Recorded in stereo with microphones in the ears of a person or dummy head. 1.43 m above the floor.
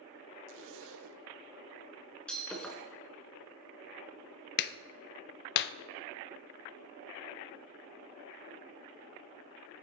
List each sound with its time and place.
0.5 s a zipper: 70° right (ahead or behind), 0.8 m
2.3 s breaking glass: 5° left (ahead or behind), 2.5 m
4.6 s a clap: 60° left (ahead or behind), 0.5 m